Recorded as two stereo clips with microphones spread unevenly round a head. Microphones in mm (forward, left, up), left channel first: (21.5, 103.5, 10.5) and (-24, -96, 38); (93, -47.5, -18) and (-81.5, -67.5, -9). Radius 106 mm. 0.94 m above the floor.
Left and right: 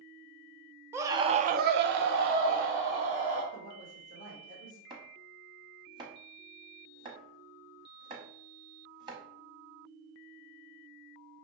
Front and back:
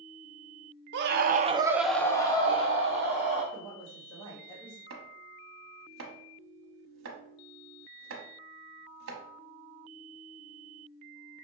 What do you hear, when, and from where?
0.9 s a scream: 175° left, 0.7 m; by 3.4 s 45° right, 1.6 m
3.5 s a woman speaking: 50° right, 1.6 m
4.9 s chopping: 175° right, 0.9 m